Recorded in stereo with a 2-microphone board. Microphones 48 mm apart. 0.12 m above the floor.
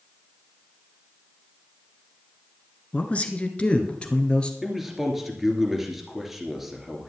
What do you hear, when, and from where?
2.9 s a man speaking: 25° left (ahead or behind), 1.5 m; by 4.5 s 20° left (ahead or behind), 2 m
4.6 s a man speaking: 5° right (ahead or behind), 2.5 m